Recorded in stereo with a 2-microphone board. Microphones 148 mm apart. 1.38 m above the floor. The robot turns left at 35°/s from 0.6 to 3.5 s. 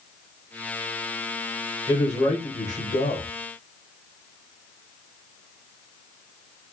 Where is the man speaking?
155° left, 1.4 m; by 3.3 s 105° left, 1.4 m.